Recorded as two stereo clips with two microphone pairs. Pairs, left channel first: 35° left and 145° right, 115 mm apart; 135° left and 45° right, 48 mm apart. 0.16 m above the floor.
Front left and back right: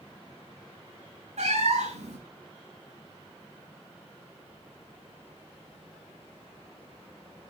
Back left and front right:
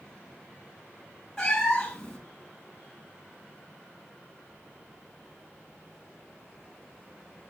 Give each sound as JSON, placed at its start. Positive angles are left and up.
{"t": 1.4, "sound": "a cat meowing", "azimuth_deg": -150, "distance_m": 2.0}